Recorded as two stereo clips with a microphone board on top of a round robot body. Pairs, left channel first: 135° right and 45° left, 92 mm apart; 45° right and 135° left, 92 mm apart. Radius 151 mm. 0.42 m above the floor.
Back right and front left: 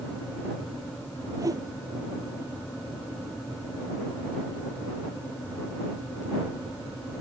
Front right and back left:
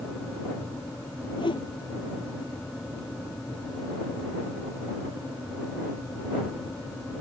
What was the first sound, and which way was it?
A whoosh, 10° right.